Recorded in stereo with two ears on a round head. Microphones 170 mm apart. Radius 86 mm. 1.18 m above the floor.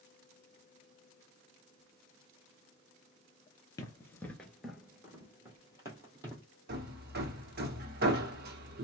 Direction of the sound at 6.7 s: 55° right (ahead or behind).